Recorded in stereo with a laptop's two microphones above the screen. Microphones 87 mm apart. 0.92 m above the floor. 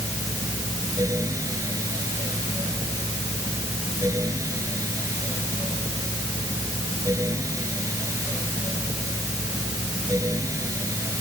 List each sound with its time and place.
0.0 s a fan: 35° right (ahead or behind)